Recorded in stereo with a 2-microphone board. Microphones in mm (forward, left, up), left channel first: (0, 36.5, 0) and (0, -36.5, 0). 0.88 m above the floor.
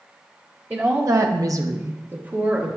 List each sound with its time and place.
0.7 s a woman speaking: 25° right (ahead or behind), 0.8 m; by 2.7 s 20° right (ahead or behind), 1.5 m